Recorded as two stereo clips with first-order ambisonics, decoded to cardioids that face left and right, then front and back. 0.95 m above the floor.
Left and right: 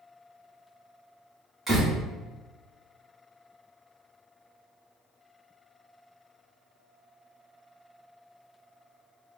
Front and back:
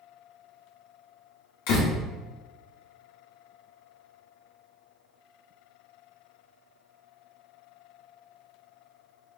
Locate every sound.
1.7 s a door slam: 10° right, 1.8 m